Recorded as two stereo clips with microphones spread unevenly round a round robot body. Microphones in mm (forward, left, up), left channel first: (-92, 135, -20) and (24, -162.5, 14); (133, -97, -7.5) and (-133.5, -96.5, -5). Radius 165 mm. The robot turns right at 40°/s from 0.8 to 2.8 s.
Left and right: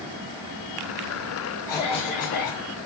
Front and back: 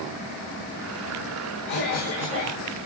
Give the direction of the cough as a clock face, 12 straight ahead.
11 o'clock.